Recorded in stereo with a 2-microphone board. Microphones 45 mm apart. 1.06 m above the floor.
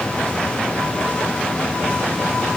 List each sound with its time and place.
Only background noise.